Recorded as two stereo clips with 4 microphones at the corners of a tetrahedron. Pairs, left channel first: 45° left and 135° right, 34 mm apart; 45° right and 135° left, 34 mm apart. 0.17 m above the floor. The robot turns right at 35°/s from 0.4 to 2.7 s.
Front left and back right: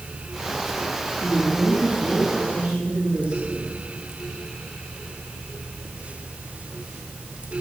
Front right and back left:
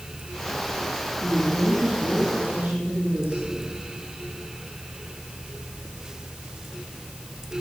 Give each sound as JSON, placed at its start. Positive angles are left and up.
{"t": 1.2, "sound": "a woman speaking", "azimuth_deg": 125, "distance_m": 9.5}